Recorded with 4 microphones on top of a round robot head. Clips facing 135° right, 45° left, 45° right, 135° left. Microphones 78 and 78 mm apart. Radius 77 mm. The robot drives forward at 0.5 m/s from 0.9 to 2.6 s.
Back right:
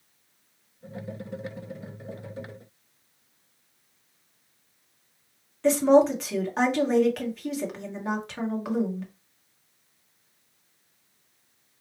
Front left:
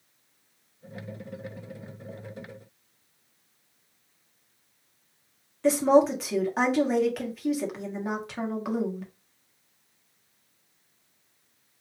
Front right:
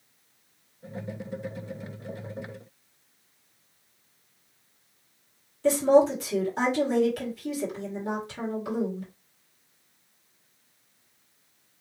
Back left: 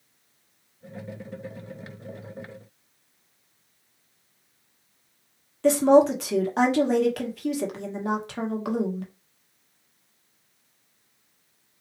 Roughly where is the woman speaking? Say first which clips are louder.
Back right 1 dB, back left 3 dB; behind left.